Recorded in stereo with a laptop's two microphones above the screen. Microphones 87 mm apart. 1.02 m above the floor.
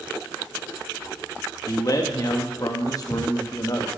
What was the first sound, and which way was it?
A man speaking, 45° left (ahead or behind).